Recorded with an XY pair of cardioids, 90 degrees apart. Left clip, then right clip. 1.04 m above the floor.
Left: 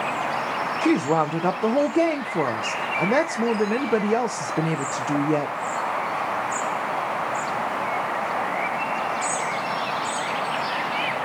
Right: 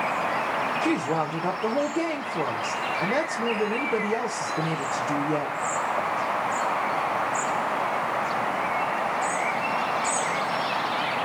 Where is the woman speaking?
45° left, 0.6 m.